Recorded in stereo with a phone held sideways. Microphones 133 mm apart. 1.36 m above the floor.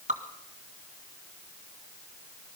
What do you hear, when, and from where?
0.1 s dripping: 60° right (ahead or behind), 2 m